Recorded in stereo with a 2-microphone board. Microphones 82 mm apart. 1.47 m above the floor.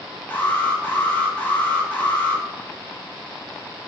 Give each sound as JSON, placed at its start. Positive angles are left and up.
{"t": 0.3, "sound": "an alarm", "side_deg": 20, "distance_m": 1.6}